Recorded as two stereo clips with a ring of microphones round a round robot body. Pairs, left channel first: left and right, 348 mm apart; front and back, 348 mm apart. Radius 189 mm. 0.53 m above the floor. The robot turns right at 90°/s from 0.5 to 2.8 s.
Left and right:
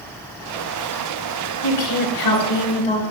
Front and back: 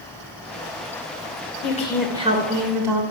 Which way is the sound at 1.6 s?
55° left.